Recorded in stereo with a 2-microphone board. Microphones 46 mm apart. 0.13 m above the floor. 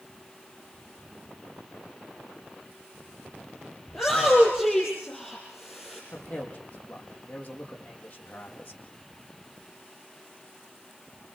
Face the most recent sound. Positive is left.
turn(degrees=35)  # may be behind; listen again after turning